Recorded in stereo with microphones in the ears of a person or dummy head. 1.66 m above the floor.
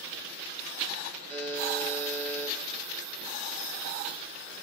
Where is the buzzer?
50° right (ahead or behind), 4 m.